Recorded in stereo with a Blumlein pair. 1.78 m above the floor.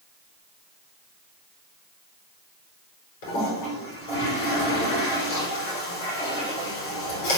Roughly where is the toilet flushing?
Ahead left.